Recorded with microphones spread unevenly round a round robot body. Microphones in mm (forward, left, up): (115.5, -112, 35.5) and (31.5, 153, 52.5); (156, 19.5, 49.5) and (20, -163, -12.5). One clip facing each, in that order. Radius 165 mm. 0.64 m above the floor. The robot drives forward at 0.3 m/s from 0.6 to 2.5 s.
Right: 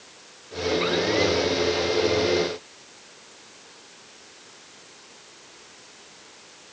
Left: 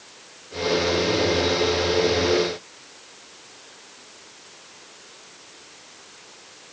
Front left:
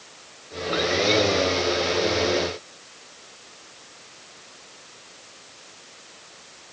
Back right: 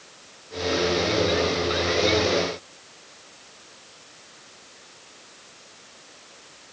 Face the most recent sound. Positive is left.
No sound to turn to.